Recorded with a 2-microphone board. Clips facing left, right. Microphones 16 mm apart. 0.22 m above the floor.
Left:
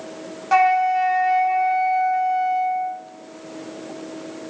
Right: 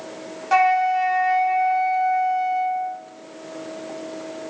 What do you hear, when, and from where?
0.5 s a flute: centre (ahead or behind), 1.5 m